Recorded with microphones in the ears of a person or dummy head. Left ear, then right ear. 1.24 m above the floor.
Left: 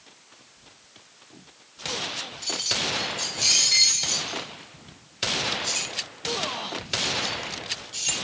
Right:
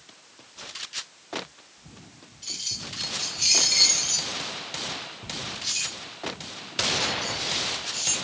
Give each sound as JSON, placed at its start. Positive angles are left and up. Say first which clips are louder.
{"t": 2.4, "sound": "keys jangling", "louder": "left 5 dB", "side_deg": 30, "distance_m": 3.5}